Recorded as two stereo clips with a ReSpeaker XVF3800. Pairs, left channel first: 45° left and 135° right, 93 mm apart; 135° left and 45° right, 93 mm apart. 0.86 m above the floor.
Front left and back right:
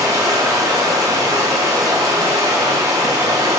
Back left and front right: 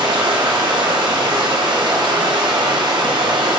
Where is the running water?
80° right, 0.8 m.